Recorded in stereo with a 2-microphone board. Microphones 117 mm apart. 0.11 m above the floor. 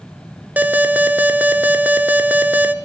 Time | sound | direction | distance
0.6 | an alarm | 15° right (ahead or behind) | 0.8 m